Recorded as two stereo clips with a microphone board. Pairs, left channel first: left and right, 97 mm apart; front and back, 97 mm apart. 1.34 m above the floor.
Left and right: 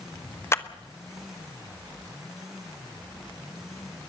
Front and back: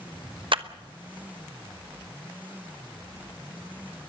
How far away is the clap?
About 1.0 m.